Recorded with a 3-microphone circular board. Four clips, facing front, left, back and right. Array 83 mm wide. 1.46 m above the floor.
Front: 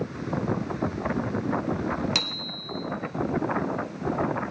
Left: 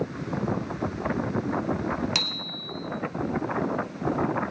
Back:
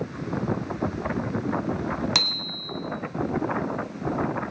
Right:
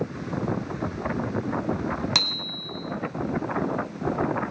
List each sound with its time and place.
2.1 s a bicycle bell: 135° right, 2 m